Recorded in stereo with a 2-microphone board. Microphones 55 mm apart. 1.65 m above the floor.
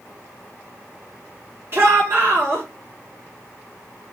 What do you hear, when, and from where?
1.7 s a shout: 45° right (ahead or behind), 1.7 m